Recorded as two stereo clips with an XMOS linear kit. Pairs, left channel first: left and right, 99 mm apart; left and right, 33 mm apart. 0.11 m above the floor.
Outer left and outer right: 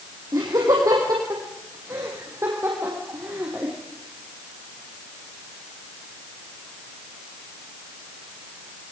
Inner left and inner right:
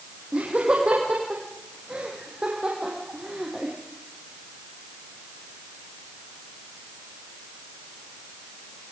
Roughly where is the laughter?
Right.